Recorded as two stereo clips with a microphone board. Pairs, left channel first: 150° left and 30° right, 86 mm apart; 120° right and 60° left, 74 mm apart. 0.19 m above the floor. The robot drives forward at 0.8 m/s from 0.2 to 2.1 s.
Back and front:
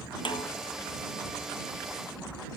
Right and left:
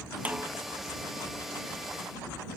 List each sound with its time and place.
0.2 s a snare drum: 130° left; by 0.5 s 135° left